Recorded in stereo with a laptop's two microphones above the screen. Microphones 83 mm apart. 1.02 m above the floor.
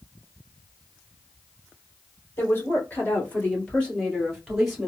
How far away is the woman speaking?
About 2.5 m.